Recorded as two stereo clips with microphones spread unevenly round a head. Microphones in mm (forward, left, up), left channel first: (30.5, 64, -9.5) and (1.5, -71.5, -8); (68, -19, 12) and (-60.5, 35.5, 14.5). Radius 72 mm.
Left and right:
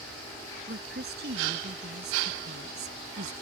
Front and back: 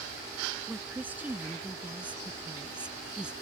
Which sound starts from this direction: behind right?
A woman speaking, at 0.7 s.